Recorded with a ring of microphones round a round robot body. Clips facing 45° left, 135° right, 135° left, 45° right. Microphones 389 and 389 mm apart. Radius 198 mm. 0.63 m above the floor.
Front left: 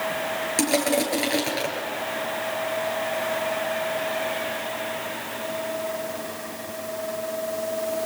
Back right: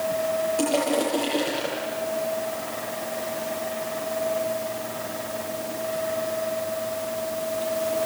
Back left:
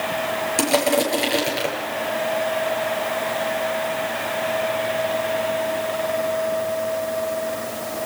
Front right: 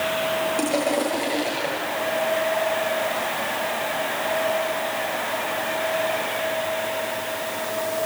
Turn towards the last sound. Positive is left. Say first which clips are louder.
# front left 2 dB, back left 4 dB
turn(degrees=85)